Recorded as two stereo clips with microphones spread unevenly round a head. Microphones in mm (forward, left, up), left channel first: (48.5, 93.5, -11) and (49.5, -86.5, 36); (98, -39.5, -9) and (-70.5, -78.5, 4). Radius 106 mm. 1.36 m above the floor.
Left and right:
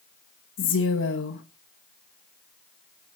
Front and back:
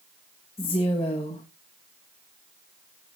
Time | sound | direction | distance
0.6 | a woman speaking | 90° left | 1.5 m